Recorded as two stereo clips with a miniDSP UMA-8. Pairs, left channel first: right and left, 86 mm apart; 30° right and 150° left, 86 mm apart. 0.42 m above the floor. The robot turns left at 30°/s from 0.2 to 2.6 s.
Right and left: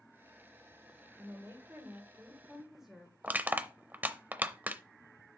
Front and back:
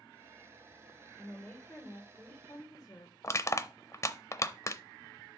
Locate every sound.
1.2 s a woman speaking: 50° left, 1.7 m; by 3.1 s 10° left, 1.7 m
3.2 s crushing: 20° left, 0.6 m